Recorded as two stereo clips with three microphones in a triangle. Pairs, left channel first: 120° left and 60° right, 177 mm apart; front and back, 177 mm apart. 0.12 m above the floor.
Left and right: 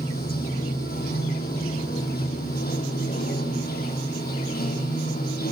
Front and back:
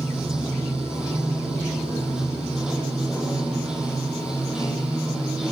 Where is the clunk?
I don't hear a clunk.